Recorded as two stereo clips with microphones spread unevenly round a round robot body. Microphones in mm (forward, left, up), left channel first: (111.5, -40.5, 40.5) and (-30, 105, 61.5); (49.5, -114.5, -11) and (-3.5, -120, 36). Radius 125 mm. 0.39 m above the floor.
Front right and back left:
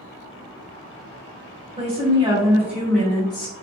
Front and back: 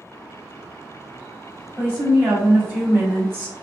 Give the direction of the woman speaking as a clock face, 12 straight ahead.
9 o'clock.